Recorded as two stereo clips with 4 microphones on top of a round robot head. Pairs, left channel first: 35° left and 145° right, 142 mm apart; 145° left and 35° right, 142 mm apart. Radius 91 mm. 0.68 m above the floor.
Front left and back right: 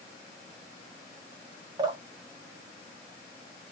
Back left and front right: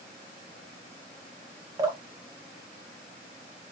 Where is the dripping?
90° right, 1.1 m.